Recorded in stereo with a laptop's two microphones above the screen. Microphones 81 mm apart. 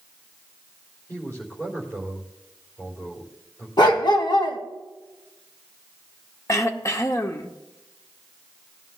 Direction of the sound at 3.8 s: 65° left (ahead or behind).